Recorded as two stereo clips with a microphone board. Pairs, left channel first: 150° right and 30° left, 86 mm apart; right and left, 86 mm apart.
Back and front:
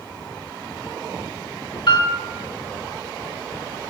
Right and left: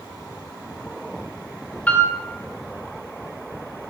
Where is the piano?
160° right, 2.5 m.